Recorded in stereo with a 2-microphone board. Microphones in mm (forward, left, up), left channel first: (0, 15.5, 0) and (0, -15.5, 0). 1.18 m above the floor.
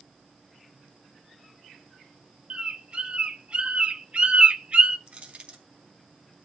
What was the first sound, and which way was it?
A bird, 35° right (ahead or behind).